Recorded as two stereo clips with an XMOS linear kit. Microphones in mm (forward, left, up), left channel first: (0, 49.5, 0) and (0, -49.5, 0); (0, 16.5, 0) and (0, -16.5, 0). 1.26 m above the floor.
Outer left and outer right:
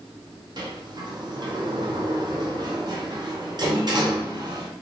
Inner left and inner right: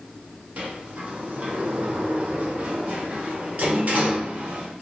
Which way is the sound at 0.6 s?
45° right (ahead or behind).